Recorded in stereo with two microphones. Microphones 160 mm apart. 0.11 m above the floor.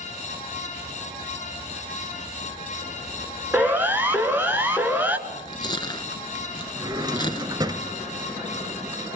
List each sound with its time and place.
3.5 s a siren: 10° right (ahead or behind), 2 m
5.3 s chewing: 30° left (ahead or behind), 1.4 m
6.8 s a drawer: 25° right (ahead or behind), 0.7 m